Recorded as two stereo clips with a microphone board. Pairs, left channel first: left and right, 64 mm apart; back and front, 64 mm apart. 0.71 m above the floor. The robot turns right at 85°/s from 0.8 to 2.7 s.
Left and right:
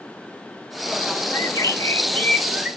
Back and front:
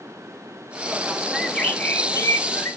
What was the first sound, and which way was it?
A bird, 75° left.